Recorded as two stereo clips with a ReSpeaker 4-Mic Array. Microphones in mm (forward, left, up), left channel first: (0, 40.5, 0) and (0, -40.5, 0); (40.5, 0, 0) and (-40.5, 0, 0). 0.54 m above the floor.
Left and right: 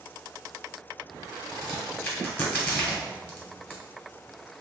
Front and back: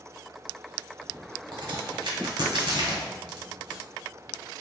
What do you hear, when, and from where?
1.5 s a crack: 155° left, 1.2 m